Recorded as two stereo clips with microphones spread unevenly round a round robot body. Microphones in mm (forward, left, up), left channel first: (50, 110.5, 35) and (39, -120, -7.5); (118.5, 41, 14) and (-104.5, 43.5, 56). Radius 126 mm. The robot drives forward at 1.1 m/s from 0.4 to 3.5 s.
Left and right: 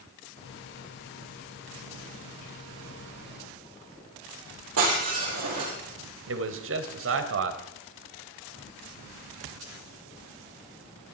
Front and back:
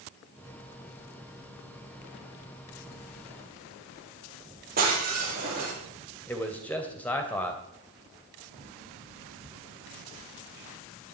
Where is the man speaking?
80° right, 2.5 m.